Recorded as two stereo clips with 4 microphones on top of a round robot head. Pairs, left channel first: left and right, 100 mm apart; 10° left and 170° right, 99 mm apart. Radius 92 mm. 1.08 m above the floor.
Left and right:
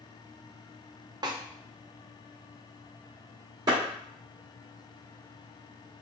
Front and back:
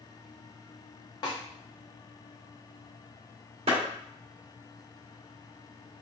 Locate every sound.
1.2 s a snare drum: 40° right, 0.7 m
3.7 s a clap: 145° right, 1.6 m